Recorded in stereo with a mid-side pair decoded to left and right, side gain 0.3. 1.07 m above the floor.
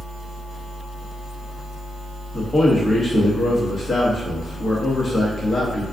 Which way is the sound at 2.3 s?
45° left.